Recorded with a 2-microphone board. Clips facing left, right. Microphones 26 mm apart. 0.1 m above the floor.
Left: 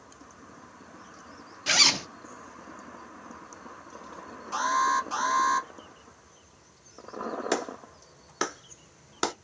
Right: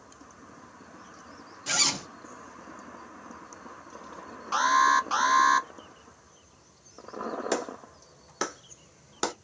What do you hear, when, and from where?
1.7 s a zipper: 40° left (ahead or behind), 0.6 m
4.5 s an alarm: 35° right (ahead or behind), 0.9 m
7.5 s a clap: 15° left (ahead or behind), 0.9 m